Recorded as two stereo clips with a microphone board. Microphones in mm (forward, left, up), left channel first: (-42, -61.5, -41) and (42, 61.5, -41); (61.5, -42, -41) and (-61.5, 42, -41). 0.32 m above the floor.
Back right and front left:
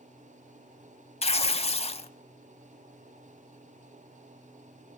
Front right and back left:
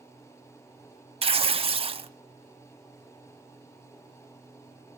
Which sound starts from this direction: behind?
Tearing paper, at 1.2 s.